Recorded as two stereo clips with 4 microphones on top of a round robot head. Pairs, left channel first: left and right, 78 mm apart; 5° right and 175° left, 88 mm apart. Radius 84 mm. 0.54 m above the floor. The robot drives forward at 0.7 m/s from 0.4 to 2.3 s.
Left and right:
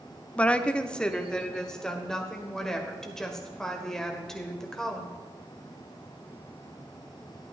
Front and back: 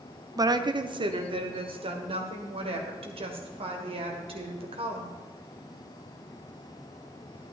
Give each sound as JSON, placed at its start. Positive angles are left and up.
{"t": 0.4, "sound": "a woman speaking", "azimuth_deg": 160, "distance_m": 0.7}